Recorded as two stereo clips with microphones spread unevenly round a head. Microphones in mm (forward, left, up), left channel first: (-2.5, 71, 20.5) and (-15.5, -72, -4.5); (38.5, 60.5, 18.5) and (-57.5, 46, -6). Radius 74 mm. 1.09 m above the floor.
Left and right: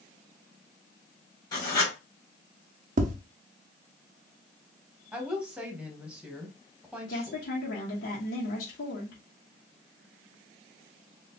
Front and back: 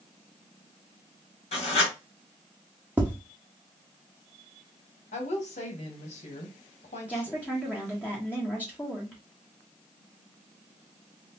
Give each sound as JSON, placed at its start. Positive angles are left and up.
{"t": 1.5, "sound": "writing", "azimuth_deg": 20, "distance_m": 2.0}
{"t": 3.0, "sound": "tapping", "azimuth_deg": -85, "distance_m": 0.7}
{"t": 5.1, "sound": "a woman speaking", "azimuth_deg": -20, "distance_m": 1.1}
{"t": 7.1, "sound": "a woman speaking", "azimuth_deg": 85, "distance_m": 1.0}